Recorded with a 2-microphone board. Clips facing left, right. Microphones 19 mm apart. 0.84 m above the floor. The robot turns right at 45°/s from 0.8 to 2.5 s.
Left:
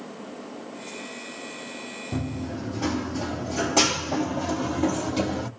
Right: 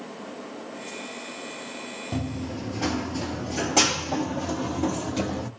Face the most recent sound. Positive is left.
turn(degrees=15)  # may be behind; listen again after turning